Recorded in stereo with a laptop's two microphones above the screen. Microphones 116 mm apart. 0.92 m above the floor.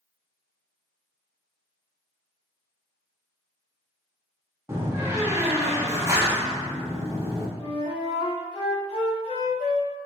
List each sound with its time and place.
4.7 s a door slam: 20° right (ahead or behind), 0.8 m
7.6 s a flute: 60° left (ahead or behind), 1.4 m